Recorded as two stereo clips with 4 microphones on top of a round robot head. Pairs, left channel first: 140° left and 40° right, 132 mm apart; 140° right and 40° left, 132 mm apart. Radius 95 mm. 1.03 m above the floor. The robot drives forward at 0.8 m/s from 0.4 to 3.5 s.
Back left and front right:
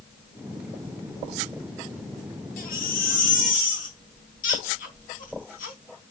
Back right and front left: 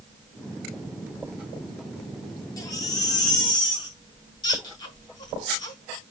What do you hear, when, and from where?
2.6 s a baby crying: 155° left, 2.5 m; by 5.8 s 160° left, 3.5 m